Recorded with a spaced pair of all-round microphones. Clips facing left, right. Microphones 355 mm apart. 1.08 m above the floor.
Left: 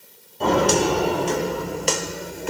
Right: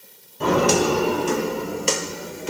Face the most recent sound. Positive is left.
turn(degrees=-5)  # may be behind; listen again after turning